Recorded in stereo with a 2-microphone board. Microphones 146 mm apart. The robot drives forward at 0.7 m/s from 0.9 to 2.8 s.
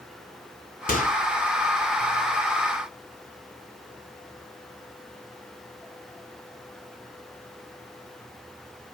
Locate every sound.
0.9 s a microwave: 75° left (ahead or behind), 2.5 m